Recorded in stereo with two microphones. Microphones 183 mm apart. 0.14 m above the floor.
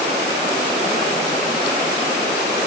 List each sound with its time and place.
Only background noise.